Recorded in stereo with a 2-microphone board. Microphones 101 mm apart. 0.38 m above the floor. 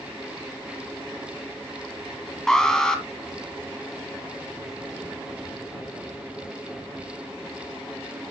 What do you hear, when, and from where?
2.5 s an alarm: 5° left (ahead or behind), 1.8 m